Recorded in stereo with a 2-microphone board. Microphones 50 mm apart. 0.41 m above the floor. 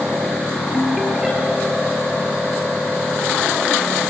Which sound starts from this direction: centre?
A ringtone, at 0.7 s.